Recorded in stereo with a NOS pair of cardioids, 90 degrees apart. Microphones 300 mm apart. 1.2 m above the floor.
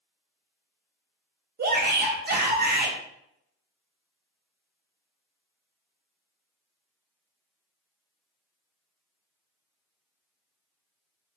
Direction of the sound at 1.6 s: 35° right.